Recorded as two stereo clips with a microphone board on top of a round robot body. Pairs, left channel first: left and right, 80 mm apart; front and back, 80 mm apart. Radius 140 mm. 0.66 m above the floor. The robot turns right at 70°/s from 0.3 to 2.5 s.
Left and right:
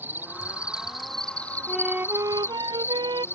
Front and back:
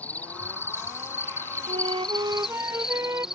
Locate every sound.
0.0 s an insect: 50° right; by 3.4 s 100° left
1.7 s a flute: straight behind; by 3.2 s 125° right